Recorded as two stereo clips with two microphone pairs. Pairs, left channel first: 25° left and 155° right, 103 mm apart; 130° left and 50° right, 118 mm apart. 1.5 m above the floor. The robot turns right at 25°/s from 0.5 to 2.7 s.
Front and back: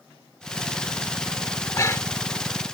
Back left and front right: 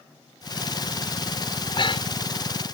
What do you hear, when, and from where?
1.6 s breathing: 80° left; by 2.3 s 100° left